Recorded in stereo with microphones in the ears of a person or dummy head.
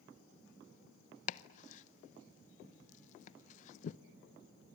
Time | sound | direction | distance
1.3 | chopping | 45° left (ahead or behind) | 0.7 m